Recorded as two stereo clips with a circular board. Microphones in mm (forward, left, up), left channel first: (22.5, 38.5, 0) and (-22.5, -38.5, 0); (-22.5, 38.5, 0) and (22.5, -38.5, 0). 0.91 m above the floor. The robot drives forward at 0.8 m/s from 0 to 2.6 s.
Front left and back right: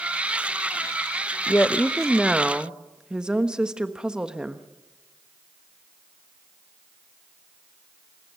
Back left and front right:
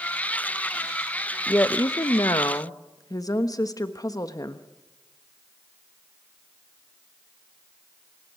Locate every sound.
1.5 s a woman speaking: 85° left, 0.6 m; by 4.7 s 160° left, 1.1 m